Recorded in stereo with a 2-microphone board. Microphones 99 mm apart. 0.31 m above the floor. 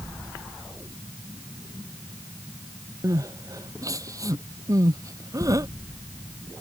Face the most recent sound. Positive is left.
turn(degrees=-35)  # may be behind; listen again after turning